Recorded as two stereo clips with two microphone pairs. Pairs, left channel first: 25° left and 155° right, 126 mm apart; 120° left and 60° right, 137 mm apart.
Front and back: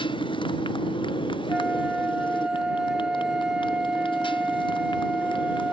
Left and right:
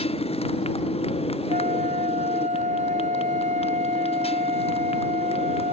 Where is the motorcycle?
75° left.